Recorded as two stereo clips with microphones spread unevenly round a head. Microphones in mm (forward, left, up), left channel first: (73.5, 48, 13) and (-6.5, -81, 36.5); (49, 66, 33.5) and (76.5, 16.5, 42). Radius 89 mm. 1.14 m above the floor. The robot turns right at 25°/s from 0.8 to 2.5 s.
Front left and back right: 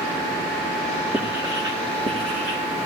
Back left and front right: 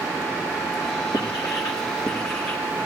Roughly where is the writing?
Behind.